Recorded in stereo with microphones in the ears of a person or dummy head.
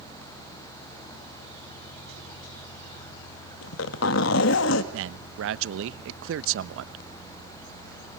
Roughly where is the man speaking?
Right.